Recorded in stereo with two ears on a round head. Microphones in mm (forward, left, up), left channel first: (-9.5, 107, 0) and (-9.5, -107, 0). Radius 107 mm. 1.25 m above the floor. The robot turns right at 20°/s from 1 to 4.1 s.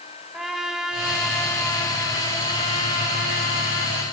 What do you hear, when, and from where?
0.3 s a trumpet: straight ahead, 1.6 m; by 4.0 s 60° left, 1.6 m